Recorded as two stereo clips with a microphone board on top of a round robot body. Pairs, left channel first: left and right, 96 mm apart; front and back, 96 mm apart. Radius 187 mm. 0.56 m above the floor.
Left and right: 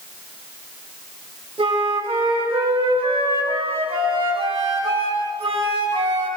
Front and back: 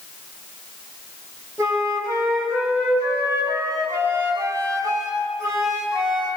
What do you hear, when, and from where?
1.6 s a flute: 120° right, 5 m